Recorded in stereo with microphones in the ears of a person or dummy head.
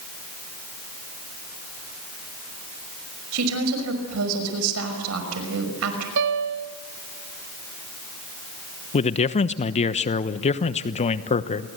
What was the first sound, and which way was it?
A woman speaking, 85° right.